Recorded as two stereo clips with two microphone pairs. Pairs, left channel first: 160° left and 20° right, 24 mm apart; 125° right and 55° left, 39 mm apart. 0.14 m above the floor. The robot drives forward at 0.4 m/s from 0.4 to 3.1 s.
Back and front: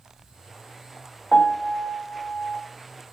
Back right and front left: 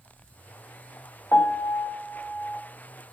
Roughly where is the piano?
Behind right.